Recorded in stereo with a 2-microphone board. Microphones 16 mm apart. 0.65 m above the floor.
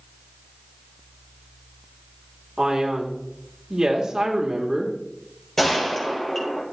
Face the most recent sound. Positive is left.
turn(degrees=20)  # may be behind; listen again after turning